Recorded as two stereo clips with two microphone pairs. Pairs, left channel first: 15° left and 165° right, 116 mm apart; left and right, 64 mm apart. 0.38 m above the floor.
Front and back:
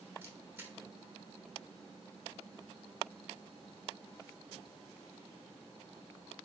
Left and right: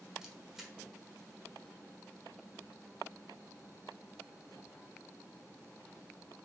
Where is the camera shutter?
170° right, 0.8 m.